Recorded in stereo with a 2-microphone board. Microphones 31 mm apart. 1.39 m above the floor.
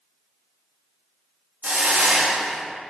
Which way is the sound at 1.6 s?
70° right (ahead or behind).